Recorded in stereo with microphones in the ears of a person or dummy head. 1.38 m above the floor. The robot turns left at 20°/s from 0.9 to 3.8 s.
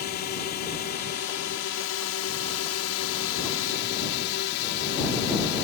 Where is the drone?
125° left; by 5.6 s 65° left.